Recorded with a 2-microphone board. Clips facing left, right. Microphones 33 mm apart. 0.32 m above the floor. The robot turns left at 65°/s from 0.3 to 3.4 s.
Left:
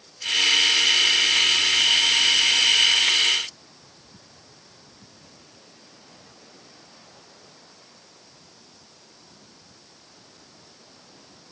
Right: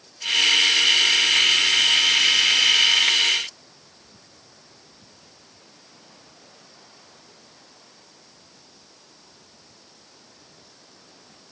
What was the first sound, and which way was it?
Only background noise.